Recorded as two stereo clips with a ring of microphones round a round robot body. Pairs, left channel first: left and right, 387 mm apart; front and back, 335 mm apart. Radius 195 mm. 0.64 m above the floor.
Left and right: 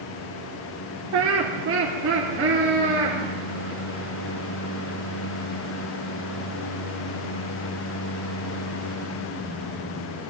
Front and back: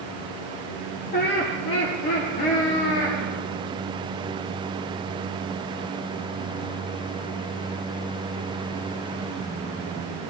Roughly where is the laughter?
Ahead right.